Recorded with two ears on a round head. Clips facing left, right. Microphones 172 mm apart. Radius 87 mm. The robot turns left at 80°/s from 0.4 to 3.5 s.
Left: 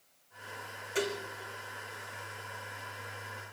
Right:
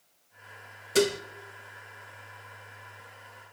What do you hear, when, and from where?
0.9 s dishes clattering: 45° right (ahead or behind), 1.0 m; by 1.2 s 65° right (ahead or behind), 1.0 m